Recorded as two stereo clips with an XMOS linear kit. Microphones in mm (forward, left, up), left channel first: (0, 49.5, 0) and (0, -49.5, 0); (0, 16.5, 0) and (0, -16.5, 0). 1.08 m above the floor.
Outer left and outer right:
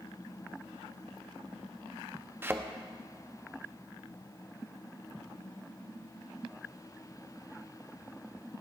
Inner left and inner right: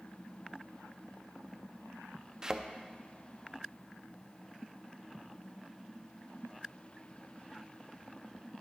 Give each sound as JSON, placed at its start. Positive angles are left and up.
{"t": 2.4, "sound": "a thud", "side_deg": -20, "distance_m": 0.5}